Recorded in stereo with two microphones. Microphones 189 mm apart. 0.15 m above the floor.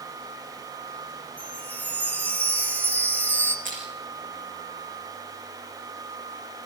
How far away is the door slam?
I don't hear a door slam.